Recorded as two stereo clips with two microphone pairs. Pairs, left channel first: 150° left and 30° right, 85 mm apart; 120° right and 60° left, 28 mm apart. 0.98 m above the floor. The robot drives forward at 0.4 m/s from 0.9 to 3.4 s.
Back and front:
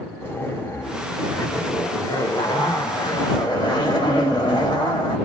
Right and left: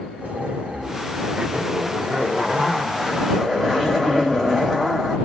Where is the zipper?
95° left, 0.9 m; by 5.2 s 145° left, 1.4 m.